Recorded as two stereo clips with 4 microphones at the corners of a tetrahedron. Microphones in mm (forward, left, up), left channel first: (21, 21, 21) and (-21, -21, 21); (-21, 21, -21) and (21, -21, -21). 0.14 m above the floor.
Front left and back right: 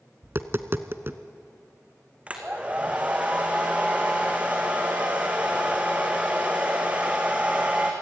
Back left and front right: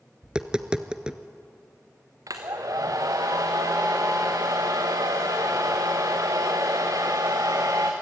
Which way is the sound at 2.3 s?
65° right.